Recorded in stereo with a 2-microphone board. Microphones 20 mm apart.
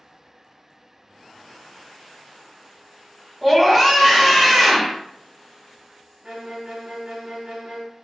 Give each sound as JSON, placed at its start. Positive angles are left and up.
{"t": 3.4, "sound": "a scream", "side_deg": -5, "distance_m": 1.0}
{"t": 6.2, "sound": "a violin", "side_deg": -35, "distance_m": 0.8}